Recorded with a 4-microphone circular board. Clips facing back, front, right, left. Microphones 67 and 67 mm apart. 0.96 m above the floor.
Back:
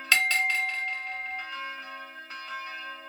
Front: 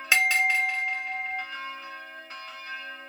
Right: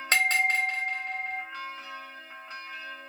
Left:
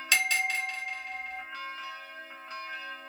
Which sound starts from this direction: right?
A bell, at 0.1 s.